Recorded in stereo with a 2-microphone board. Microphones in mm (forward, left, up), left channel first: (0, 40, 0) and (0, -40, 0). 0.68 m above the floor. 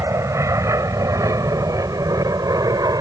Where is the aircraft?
40° right (ahead or behind); by 3.0 s 55° right (ahead or behind).